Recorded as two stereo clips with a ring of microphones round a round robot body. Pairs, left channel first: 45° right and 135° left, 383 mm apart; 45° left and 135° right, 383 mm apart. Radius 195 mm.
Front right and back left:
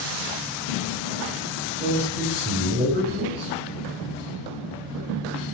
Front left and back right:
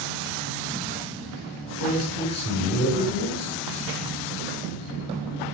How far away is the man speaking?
About 1.7 m.